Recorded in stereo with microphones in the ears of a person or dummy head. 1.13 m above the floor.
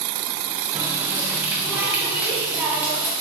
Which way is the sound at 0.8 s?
5° right (ahead or behind).